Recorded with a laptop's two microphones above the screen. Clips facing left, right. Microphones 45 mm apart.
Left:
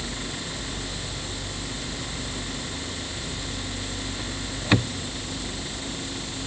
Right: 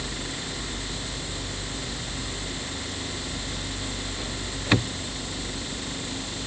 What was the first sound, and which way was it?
Only background noise.